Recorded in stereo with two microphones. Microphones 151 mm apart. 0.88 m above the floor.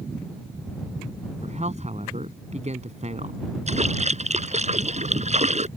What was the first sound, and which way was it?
A man speaking, 45° right (ahead or behind).